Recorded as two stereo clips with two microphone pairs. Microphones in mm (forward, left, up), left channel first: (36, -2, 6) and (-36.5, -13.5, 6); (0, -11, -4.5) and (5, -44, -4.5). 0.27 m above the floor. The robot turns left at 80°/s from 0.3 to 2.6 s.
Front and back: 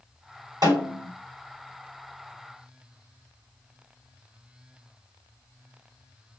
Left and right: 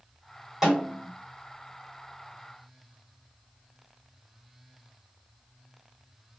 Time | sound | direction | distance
0.6 | a snare drum | 170° right | 2 m